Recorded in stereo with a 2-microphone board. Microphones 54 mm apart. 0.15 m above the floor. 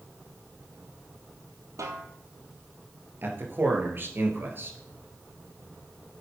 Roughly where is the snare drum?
Right.